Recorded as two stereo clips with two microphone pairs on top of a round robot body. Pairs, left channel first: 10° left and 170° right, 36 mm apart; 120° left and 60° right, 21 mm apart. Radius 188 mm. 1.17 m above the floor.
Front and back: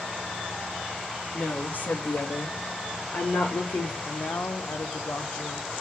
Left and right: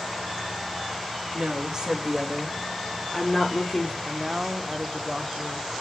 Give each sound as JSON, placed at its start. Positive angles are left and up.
{"t": 1.3, "sound": "a woman speaking", "azimuth_deg": -30, "distance_m": 2.5}
{"t": 4.0, "sound": "a man speaking", "azimuth_deg": 0, "distance_m": 0.9}